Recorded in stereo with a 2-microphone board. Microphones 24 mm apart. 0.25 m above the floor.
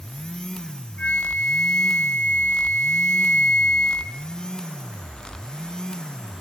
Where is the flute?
55° left (ahead or behind), 1.1 m.